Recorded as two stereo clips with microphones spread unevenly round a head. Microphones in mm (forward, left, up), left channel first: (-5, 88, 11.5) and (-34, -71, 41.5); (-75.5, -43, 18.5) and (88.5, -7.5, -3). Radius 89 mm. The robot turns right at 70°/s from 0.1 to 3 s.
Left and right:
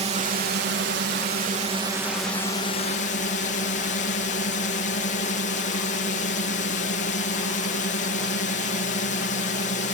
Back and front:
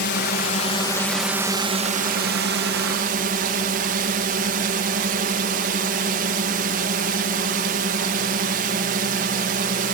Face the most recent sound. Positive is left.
turn(degrees=50)